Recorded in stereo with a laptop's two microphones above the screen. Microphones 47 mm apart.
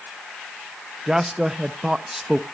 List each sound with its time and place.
1.1 s a man speaking: 10° right (ahead or behind), 0.6 m